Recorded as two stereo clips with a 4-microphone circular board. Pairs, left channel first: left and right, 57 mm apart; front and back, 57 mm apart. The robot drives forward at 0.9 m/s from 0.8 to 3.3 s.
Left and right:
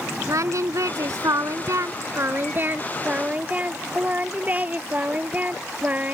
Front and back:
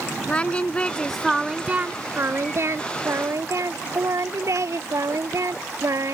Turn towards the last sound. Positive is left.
turn(degrees=-155)